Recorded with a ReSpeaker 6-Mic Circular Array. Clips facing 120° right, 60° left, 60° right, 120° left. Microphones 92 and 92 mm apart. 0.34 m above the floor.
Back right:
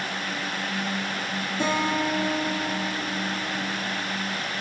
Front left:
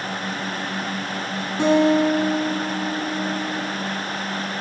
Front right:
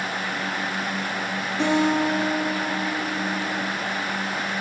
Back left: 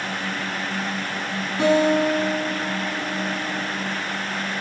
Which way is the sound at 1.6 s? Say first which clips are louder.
Front left 10 dB, back left 3 dB; 45° left.